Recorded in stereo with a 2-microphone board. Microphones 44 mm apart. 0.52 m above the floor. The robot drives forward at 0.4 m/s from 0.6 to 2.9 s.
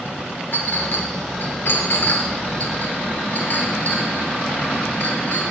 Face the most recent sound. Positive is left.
turn(degrees=45)  # may be behind; listen again after turning